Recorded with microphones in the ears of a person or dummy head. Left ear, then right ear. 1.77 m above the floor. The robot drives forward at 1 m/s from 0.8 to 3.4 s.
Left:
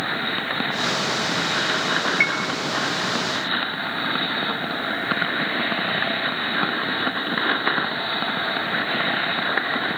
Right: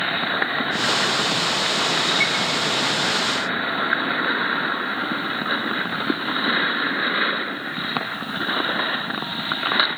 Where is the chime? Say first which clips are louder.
Even; 10° left (ahead or behind), 2 m.